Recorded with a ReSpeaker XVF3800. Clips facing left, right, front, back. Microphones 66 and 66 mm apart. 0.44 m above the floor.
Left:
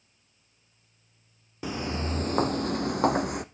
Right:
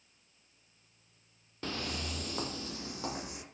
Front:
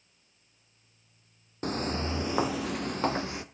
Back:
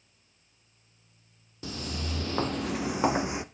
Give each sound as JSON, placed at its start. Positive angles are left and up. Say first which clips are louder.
{"t": 1.6, "sound": "footsteps", "louder": "left 7 dB, front 6 dB", "azimuth_deg": 15, "distance_m": 0.6}